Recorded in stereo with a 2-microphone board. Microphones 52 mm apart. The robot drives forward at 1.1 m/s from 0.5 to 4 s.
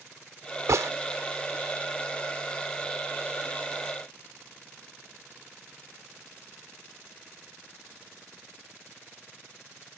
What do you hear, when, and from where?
0.7 s a gunshot: 80° right; by 0.9 s 70° right (ahead or behind)